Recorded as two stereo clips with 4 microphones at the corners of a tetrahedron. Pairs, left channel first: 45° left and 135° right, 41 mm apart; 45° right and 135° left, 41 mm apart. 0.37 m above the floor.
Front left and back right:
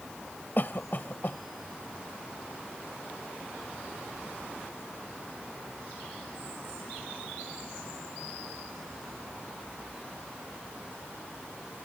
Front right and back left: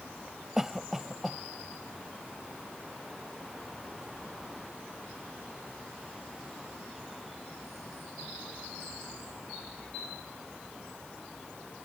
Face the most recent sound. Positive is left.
turn(degrees=55)